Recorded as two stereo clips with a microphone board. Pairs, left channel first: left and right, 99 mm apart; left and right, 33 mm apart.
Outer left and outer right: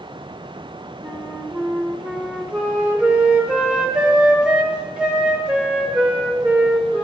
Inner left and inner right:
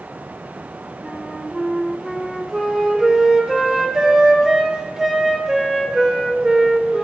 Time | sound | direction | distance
1.0 | a flute | 10° right (ahead or behind) | 0.9 m